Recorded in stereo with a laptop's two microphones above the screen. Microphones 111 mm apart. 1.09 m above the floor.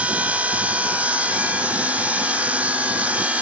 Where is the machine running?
10° right (ahead or behind), 0.9 m.